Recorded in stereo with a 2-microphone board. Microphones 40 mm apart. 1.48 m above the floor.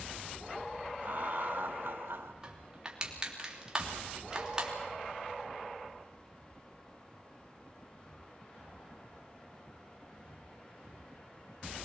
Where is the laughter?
55° right (ahead or behind), 2.0 m; by 2.3 s 75° right (ahead or behind), 1.7 m.